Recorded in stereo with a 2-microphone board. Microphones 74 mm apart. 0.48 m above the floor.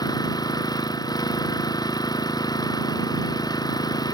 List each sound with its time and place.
0.0 s an engine running: 65° left (ahead or behind)